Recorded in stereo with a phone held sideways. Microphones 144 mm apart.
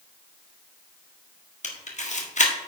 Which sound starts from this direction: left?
A camera shutter, at 1.6 s.